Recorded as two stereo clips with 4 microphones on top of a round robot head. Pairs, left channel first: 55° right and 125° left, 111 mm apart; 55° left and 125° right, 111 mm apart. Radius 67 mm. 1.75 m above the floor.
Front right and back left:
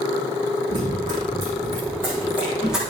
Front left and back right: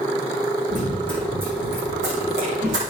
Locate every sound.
0.7 s running footsteps: straight behind, 6.5 m; by 2.8 s 145° right, 5 m